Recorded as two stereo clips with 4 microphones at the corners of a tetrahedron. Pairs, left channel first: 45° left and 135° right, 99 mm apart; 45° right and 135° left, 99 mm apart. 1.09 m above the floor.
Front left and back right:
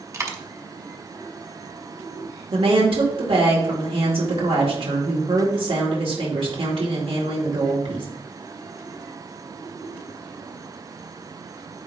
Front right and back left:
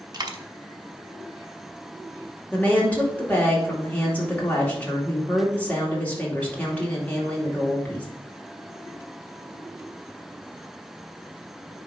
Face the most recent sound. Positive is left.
turn(degrees=-120)